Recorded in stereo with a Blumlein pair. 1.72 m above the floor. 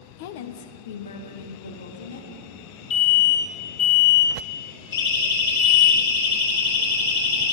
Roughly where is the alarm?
Ahead left.